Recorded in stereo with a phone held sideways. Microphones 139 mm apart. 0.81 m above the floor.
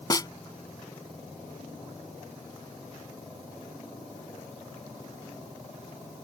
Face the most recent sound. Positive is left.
turn(degrees=25)  # may be behind; listen again after turning